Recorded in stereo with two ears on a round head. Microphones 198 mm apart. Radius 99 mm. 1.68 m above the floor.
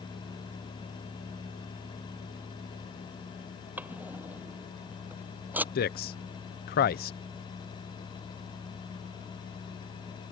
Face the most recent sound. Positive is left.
turn(degrees=45)  # may be behind; listen again after turning